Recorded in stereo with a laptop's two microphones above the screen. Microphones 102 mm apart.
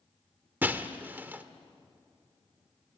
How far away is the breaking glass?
About 1.4 m.